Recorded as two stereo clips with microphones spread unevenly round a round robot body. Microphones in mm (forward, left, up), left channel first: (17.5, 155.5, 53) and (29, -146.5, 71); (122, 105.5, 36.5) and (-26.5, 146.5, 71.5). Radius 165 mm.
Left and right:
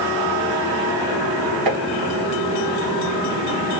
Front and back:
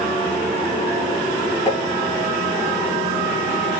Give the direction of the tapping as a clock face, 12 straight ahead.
3 o'clock.